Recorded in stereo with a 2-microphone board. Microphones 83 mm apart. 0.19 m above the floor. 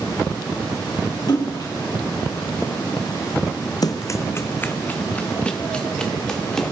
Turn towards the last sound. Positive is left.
turn(degrees=5)  # may be behind; listen again after turning